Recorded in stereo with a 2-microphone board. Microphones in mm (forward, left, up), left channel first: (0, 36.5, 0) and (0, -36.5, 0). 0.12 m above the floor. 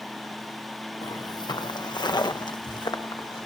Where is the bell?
I don't hear a bell.